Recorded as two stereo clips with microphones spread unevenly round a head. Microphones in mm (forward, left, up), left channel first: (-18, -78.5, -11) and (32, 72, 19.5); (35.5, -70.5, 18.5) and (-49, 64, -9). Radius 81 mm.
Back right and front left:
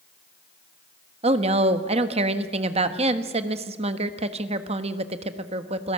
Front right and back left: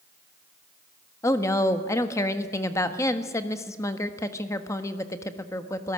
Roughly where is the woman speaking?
Ahead.